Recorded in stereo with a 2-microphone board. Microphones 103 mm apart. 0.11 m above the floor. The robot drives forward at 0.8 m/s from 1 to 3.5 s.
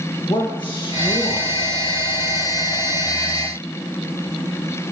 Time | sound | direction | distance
0.3 | a man speaking | 55° left (ahead or behind) | 2.5 m